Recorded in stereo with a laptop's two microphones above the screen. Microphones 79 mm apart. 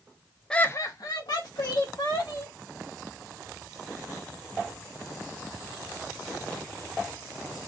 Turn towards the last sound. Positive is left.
turn(degrees=60)  # may be behind; listen again after turning